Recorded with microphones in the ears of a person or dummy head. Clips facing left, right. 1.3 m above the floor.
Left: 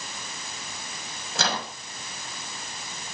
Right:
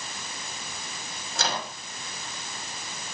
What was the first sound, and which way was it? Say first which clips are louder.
A microwave: left 2 dB; 70° left (ahead or behind).